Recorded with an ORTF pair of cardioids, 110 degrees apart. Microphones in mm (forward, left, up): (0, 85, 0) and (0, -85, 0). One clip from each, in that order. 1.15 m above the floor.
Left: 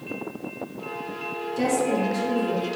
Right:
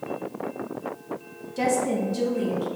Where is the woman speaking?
10° right, 0.9 m; by 2.7 s 40° right, 2 m.